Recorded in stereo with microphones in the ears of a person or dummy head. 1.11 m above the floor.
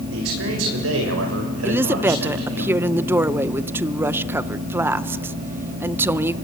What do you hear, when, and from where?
0.1 s a man speaking: 70° right (ahead or behind), 6 m
1.6 s a woman speaking: 15° right (ahead or behind), 0.6 m